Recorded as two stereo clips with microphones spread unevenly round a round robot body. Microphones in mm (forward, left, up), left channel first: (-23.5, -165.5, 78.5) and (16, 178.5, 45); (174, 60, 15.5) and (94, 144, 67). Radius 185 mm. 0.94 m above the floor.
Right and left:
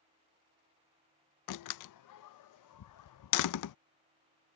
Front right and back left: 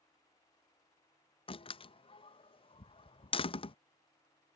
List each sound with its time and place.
1.5 s a door slam: 55° right